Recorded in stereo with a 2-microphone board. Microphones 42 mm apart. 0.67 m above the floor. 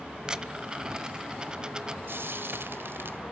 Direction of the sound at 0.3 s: 20° right (ahead or behind).